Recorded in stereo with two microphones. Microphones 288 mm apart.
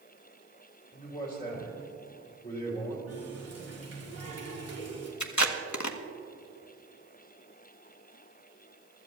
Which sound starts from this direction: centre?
A man speaking, at 0.9 s.